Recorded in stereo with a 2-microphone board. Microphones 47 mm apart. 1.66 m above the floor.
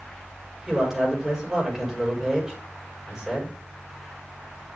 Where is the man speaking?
10° right (ahead or behind), 5.5 m.